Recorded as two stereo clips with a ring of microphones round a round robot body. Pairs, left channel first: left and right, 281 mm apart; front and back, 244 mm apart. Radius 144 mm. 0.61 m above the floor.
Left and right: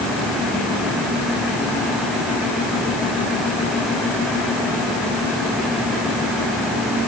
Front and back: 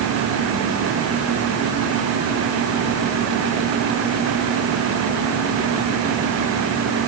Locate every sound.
Only background noise.